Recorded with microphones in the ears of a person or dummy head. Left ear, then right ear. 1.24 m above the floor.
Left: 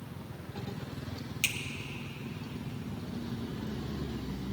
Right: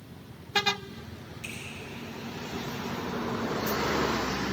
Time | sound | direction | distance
1.4 | a finger snap | 80° left | 1.3 m